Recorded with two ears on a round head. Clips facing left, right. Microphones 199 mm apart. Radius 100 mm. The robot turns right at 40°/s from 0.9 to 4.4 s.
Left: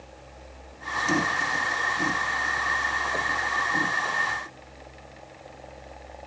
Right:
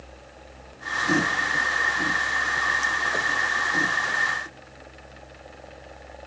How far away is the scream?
I don't hear a scream.